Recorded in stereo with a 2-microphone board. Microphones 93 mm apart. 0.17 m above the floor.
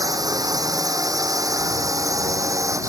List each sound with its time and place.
0.0 s a drone: 40° right (ahead or behind); by 2.9 s 35° right (ahead or behind)